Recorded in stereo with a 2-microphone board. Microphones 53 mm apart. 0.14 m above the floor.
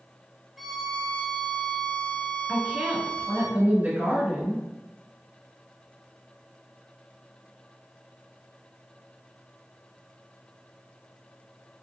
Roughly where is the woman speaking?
Right.